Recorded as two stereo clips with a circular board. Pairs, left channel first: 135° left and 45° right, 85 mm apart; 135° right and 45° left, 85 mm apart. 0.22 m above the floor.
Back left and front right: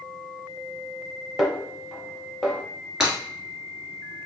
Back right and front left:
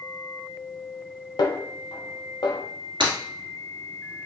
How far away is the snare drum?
About 0.7 m.